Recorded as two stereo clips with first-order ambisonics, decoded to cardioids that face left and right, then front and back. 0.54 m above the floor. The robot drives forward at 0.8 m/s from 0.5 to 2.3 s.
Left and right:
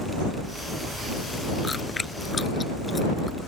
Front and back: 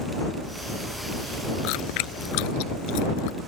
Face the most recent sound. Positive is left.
turn(degrees=10)